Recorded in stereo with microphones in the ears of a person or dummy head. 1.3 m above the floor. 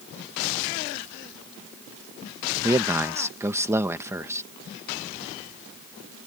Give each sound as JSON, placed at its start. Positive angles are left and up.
{"t": 2.6, "sound": "a man speaking", "side_deg": -15}